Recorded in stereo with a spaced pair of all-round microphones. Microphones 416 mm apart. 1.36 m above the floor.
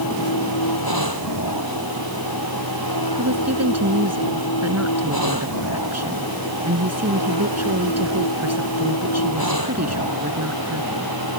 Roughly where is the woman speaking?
Right.